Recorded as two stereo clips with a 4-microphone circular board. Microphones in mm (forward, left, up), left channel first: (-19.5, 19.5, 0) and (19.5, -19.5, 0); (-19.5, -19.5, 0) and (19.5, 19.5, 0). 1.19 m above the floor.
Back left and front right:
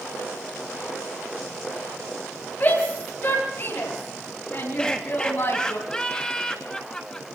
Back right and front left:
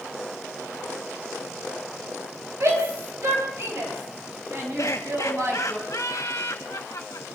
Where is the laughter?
145° right, 1.5 m.